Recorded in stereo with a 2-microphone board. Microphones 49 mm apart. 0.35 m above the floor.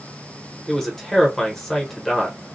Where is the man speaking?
10° left (ahead or behind), 0.9 m.